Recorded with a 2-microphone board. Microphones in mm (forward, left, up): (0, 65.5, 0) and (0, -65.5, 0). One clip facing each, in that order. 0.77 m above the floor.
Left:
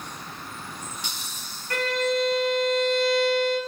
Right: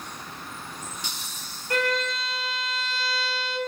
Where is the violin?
20° right (ahead or behind), 1.4 m.